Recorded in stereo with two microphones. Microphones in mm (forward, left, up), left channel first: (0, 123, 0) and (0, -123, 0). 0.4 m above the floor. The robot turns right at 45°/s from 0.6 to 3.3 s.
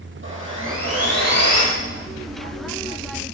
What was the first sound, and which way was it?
Sawing, 130° right.